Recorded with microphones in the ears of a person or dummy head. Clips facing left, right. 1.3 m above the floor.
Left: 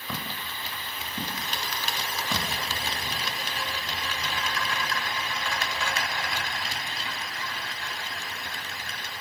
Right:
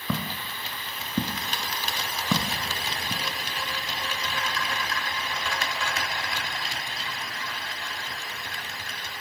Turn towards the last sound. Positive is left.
turn(degrees=-70)  # may be behind; listen again after turning